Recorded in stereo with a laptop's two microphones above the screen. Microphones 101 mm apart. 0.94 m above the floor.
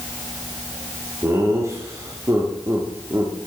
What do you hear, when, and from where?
1.2 s laughter: 30° right (ahead or behind), 1.9 m